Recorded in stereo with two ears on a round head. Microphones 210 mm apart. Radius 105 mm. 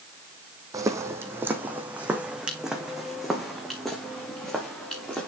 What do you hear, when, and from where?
0.7 s footsteps: 15° right (ahead or behind), 1.5 m; by 5.3 s 5° left (ahead or behind), 3.5 m